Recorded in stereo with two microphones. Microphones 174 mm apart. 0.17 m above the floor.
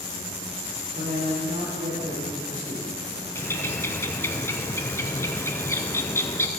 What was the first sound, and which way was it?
A woman speaking, 40° right (ahead or behind).